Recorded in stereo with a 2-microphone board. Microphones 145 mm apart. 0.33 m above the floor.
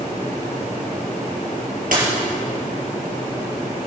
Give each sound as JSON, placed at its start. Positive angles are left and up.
{"t": 1.9, "sound": "a dropped coin", "side_deg": -75, "distance_m": 3.5}